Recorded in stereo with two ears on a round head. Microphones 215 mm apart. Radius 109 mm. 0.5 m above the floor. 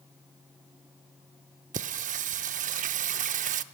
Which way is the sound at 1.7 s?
30° right (ahead or behind).